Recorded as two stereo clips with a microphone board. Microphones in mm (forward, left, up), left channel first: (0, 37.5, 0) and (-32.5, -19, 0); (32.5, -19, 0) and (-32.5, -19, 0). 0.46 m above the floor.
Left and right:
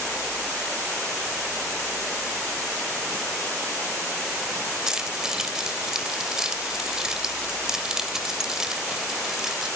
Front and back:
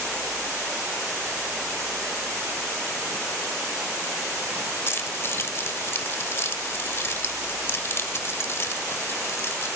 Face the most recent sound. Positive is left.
turn(degrees=-40)